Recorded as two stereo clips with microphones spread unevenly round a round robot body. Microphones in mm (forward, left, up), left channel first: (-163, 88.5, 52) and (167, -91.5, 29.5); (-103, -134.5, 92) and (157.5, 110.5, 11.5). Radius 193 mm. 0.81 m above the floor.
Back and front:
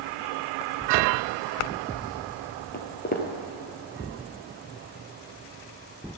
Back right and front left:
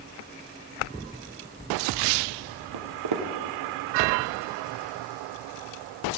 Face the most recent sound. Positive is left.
turn(degrees=90)